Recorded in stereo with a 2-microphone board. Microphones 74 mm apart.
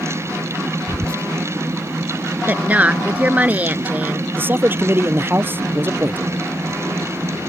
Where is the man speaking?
30° right (ahead or behind).